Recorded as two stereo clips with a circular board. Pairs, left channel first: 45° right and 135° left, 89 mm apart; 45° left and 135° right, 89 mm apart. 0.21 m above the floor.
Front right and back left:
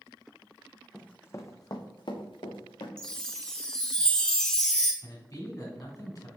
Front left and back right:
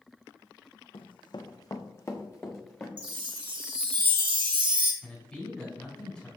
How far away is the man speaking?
About 2 m.